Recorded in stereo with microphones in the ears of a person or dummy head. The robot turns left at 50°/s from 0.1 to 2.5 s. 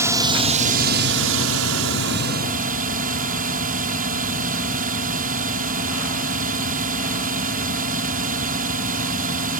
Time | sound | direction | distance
0.0 | a drone | 15° right | ?